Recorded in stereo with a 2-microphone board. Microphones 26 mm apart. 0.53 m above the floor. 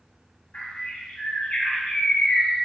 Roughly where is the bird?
Left.